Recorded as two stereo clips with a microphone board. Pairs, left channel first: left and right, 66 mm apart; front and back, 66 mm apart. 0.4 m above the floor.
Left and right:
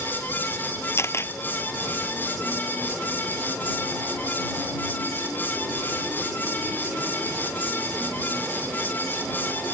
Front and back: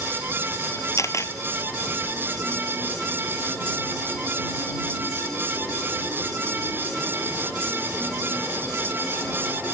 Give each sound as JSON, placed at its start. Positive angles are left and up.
{"t": 1.0, "sound": "a camera shutter", "azimuth_deg": 40}